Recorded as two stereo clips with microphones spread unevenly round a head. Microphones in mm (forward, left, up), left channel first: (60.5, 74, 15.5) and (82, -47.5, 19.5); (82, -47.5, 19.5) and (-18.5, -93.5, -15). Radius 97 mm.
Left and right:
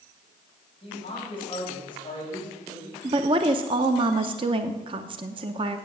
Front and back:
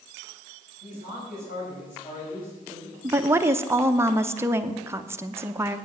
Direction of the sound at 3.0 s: 115° right.